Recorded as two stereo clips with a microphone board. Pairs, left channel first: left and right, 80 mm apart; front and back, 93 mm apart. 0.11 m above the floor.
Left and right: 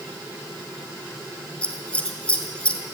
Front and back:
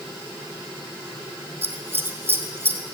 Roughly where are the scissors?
Behind left.